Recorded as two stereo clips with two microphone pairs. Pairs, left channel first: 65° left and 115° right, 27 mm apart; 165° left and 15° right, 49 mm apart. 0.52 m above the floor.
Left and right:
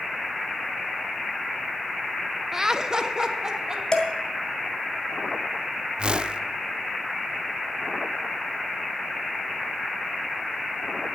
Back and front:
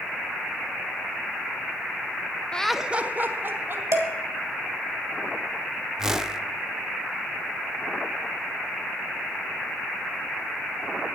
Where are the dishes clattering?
5° left, 1.7 m.